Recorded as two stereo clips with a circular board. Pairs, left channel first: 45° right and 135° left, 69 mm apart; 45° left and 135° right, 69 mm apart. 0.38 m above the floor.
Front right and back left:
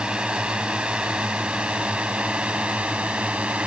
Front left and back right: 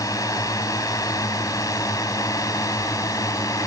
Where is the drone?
60° left; by 3.7 s 65° left.